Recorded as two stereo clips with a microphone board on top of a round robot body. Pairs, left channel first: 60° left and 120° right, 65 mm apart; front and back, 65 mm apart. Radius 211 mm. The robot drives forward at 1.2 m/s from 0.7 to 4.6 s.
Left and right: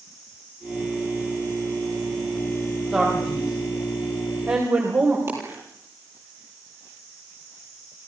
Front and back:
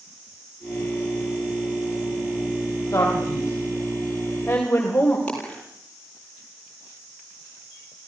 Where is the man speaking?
45° right, 5.5 m; by 5.2 s 65° right, 4.5 m.